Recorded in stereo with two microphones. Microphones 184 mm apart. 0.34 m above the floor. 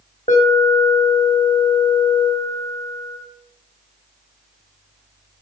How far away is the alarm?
About 1.7 m.